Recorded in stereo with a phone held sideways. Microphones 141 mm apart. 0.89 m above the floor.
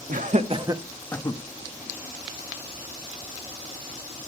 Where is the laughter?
65° right (ahead or behind), 1.4 m; by 1.4 s 35° left (ahead or behind), 1.2 m.